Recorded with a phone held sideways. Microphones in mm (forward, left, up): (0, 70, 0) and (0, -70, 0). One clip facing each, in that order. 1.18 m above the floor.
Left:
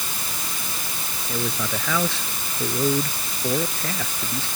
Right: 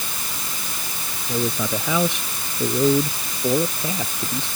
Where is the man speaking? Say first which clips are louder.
Right 4 dB; 20° right (ahead or behind).